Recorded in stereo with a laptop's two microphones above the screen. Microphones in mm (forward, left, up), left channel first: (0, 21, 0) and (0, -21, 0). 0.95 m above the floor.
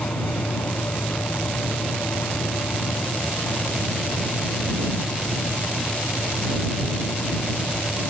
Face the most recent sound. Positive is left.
turn(degrees=85)